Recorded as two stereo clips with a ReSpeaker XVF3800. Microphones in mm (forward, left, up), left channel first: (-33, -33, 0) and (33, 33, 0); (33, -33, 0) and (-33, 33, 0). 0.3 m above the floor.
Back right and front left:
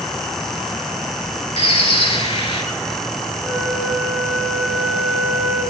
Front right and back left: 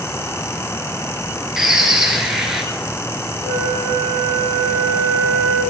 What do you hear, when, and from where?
1.6 s a bird: 140° right, 0.9 m
3.4 s a flute: 45° right, 2.5 m